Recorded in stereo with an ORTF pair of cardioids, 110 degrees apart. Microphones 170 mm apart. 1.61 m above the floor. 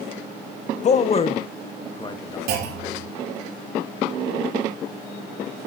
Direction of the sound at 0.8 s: 40° left.